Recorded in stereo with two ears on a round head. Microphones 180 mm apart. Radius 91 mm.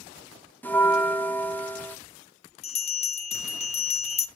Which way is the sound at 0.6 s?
10° left (ahead or behind).